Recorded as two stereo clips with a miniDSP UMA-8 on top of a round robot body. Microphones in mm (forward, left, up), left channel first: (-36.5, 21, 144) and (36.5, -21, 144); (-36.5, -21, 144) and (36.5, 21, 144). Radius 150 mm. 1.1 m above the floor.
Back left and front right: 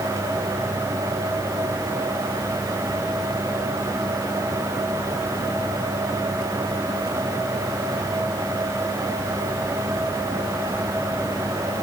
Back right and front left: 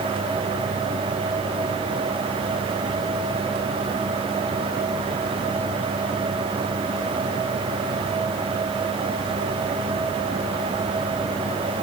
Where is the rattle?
No rattle in this recording.